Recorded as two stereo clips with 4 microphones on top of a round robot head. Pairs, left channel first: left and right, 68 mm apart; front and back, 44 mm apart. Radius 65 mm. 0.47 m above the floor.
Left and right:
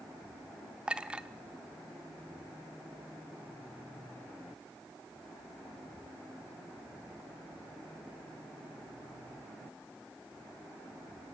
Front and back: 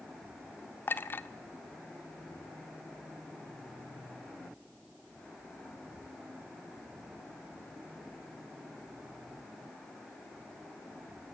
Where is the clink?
15° right, 0.9 m.